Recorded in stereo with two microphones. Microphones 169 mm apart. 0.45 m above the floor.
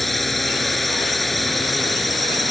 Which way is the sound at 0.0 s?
Centre (ahead or behind).